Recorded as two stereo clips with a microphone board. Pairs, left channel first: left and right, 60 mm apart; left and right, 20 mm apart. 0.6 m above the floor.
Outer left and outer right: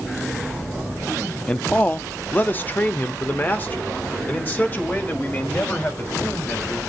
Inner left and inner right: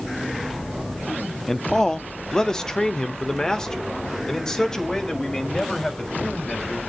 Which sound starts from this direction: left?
A man speaking, at 1.5 s.